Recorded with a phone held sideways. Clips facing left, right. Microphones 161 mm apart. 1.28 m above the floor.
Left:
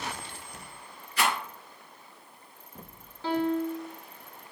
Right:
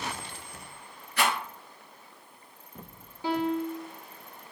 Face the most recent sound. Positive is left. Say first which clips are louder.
# left 1 dB
turn(degrees=-15)  # may be behind; listen again after turning